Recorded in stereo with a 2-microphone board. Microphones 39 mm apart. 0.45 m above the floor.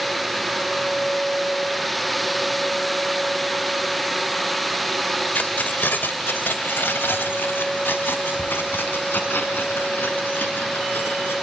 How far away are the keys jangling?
About 0.8 m.